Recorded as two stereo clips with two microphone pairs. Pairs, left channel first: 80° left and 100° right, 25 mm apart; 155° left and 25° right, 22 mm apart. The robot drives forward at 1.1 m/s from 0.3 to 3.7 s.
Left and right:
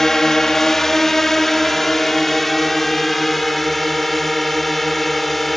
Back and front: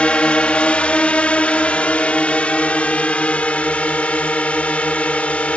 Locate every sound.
0.0 s a drone: 150° left; by 5.6 s 165° left